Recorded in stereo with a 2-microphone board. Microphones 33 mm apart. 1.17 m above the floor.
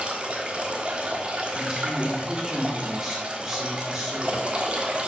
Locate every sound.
0.0 s running water: 35° right (ahead or behind), 1.2 m
1.5 s a woman speaking: 20° right (ahead or behind), 3.5 m